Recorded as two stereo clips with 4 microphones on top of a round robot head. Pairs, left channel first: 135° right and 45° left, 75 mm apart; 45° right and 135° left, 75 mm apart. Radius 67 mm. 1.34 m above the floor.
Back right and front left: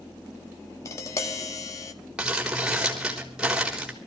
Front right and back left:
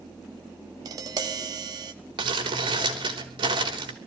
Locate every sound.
0.8 s tapping: 170° left, 1.4 m
2.2 s crumpling: 125° left, 4 m